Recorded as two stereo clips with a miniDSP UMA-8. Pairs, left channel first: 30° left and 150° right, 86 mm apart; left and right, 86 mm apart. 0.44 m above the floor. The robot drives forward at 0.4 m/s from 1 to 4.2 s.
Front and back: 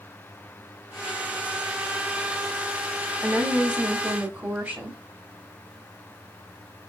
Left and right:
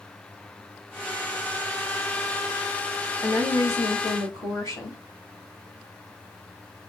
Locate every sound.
3.2 s a woman speaking: 130° left, 2 m; by 5.0 s 135° left, 2.5 m